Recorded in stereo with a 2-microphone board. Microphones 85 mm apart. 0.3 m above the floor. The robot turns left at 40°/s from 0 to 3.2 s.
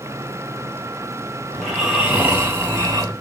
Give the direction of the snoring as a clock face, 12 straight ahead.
12 o'clock.